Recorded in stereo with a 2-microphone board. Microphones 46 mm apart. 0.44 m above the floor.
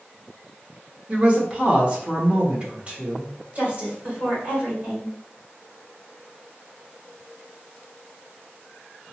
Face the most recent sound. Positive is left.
turn(degrees=-30)  # may be behind; listen again after turning